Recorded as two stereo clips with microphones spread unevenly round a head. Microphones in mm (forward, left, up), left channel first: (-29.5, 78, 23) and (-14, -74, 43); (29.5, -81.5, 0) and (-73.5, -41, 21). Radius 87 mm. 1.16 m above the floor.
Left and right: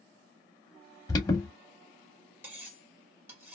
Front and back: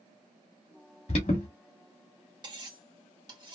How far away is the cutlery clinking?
About 1.5 m.